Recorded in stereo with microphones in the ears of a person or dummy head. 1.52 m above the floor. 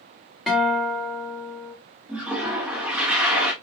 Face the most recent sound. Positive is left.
turn(degrees=-10)  # may be behind; listen again after turning